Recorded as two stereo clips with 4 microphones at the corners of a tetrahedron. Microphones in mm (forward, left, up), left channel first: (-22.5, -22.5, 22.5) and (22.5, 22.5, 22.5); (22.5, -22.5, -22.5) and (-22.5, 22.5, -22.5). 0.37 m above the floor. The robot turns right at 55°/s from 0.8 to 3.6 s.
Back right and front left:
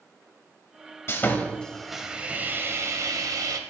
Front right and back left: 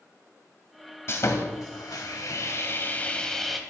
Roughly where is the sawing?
Right.